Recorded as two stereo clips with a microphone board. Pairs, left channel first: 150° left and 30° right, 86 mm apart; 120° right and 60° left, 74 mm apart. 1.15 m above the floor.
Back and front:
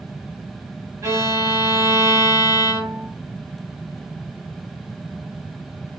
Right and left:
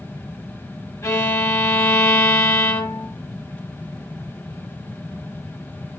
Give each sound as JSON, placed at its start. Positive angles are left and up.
{"t": 1.0, "sound": "a violin", "azimuth_deg": -75, "distance_m": 1.2}